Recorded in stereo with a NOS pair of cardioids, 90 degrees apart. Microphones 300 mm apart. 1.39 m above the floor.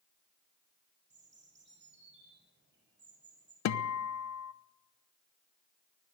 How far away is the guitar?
About 1.1 m.